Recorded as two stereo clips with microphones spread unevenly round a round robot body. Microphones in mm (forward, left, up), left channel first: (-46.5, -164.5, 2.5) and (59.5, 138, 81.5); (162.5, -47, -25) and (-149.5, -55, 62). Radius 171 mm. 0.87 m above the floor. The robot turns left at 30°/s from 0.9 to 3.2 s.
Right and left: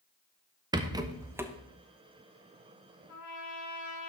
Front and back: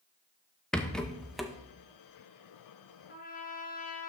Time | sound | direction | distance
0.7 | a rattle | 25° right | 0.8 m
3.1 | a trumpet | 65° right | 2 m